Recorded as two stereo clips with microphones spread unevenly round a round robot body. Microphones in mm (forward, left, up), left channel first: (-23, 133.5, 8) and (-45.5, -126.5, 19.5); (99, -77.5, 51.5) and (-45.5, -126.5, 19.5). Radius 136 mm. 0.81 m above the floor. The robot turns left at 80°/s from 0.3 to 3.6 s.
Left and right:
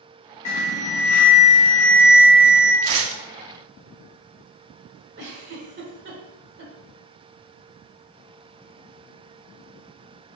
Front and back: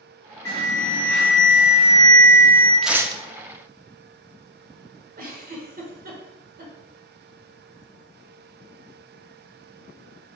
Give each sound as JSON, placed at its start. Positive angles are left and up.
{"t": 0.5, "sound": "an alarm", "azimuth_deg": 100, "distance_m": 3.5}
{"t": 2.8, "sound": "tearing paper", "azimuth_deg": -75, "distance_m": 1.2}
{"t": 5.2, "sound": "a giggle", "azimuth_deg": -145, "distance_m": 2.0}